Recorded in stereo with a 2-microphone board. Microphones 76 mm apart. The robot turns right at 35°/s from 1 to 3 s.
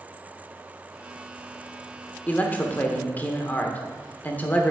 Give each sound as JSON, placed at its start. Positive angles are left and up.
{"t": 2.3, "sound": "a man speaking", "side_deg": 20, "distance_m": 0.8}